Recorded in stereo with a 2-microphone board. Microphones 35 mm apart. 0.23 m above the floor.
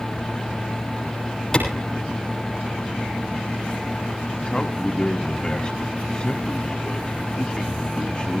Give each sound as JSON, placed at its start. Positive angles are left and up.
{"t": 1.5, "sound": "a clap", "side_deg": 15, "distance_m": 7.0}
{"t": 4.5, "sound": "a man speaking", "side_deg": 25, "distance_m": 1.7}